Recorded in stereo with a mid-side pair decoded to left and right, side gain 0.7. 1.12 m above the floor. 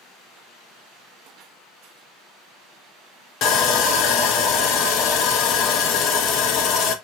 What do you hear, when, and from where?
3.4 s sawing: 50° left, 0.6 m